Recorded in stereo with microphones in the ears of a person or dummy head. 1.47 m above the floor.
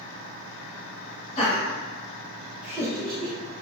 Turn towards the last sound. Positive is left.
turn(degrees=-35)  # may be behind; listen again after turning